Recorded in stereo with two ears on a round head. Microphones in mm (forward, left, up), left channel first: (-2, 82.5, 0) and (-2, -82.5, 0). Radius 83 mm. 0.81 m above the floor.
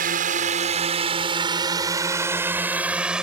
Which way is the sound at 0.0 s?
50° right (ahead or behind).